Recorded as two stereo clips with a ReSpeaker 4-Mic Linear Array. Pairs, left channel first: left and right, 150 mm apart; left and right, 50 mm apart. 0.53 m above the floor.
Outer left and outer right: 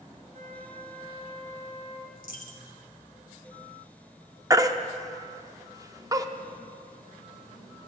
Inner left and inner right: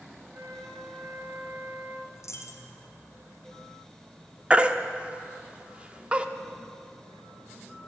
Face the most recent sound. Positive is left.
turn(degrees=-20)  # may be behind; listen again after turning